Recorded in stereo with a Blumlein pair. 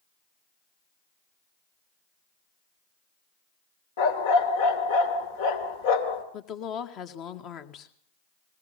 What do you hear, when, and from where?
4.0 s a dog barking: 55° left, 2.5 m
6.3 s a woman speaking: 35° left, 1.8 m